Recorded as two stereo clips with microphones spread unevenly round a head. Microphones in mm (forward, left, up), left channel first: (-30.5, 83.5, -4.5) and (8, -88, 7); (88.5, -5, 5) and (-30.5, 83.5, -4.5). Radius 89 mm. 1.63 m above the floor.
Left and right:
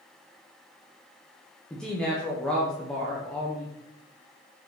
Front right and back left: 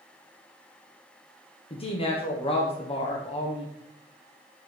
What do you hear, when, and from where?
1.7 s a woman speaking: 15° left, 1.1 m